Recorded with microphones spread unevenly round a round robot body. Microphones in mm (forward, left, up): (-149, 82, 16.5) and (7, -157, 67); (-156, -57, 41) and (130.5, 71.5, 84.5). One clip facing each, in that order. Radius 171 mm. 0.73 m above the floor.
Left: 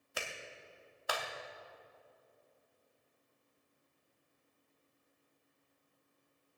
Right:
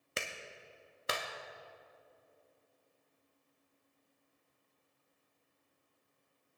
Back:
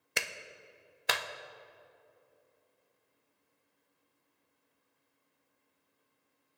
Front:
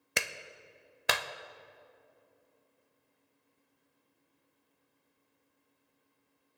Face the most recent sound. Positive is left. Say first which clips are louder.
# right 1 dB, front 2 dB
turn(degrees=15)